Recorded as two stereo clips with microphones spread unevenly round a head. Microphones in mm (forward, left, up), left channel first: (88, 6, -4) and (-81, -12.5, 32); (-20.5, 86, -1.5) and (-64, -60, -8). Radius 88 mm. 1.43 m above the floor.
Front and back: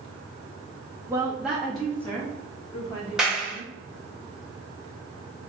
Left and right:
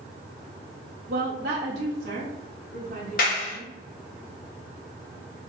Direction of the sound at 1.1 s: 100° right.